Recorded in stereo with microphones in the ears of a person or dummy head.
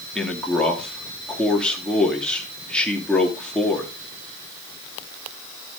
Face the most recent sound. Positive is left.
turn(degrees=0)  # may be behind; listen again after turning